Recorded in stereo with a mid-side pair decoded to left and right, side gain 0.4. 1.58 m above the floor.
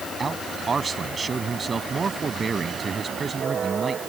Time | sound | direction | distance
0.2 | a man speaking | 35° right | ?